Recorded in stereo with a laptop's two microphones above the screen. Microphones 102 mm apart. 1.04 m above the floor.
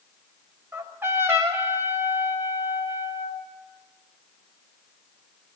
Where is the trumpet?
25° right (ahead or behind), 5.5 m.